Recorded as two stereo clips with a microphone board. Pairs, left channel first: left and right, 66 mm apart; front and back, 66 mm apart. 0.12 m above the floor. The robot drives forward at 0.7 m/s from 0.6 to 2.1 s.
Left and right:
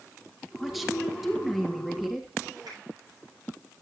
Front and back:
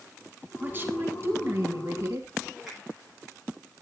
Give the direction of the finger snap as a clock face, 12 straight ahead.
3 o'clock.